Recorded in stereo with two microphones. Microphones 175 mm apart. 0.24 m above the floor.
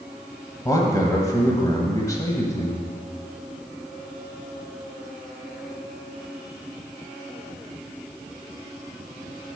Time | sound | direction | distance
0.7 | a man speaking | 20° left (ahead or behind) | 1.0 m